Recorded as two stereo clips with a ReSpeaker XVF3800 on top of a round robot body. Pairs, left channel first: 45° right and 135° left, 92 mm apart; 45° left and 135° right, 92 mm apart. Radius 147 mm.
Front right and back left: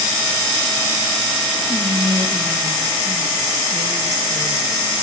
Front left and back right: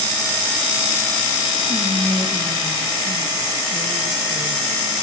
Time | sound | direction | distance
1.7 | whispering | straight behind | 1.2 m